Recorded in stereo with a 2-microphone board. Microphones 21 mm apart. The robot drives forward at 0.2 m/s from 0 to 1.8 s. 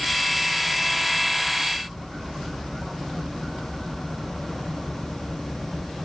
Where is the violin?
I don't hear a violin.